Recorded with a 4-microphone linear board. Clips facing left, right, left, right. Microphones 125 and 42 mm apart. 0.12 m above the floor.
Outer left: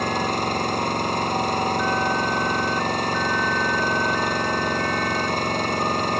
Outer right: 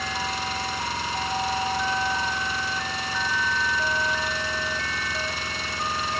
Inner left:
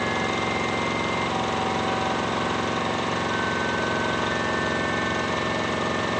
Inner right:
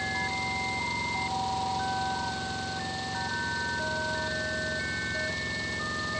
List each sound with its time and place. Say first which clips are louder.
0.0 s an engine running: outer left 7 dB, inner left 6 dB; 50° left (ahead or behind)